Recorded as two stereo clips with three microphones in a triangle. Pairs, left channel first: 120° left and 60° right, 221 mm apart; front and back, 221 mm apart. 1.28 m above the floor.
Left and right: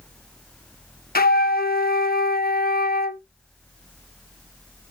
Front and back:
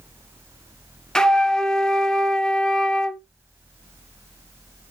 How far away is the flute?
About 0.7 m.